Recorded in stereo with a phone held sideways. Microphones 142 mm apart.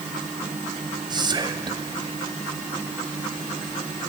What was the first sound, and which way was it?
Whispering, 30° right (ahead or behind).